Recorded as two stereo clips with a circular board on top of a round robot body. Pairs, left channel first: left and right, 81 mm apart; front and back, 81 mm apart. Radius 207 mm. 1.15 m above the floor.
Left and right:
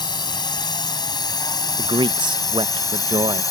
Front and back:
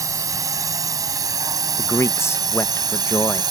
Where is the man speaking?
60° right.